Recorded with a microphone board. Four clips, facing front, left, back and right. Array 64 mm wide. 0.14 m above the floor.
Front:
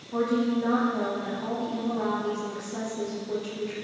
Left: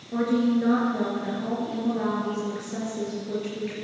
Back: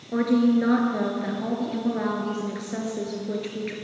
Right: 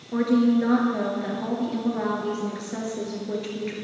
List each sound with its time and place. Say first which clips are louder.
0.1 s a woman speaking: right 3 dB, back 5 dB; 160° right, 2.5 m